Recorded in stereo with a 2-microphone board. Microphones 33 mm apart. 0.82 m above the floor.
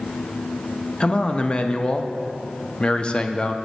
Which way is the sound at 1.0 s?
30° left (ahead or behind).